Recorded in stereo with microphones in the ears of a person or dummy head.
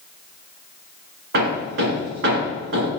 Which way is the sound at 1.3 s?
55° right (ahead or behind).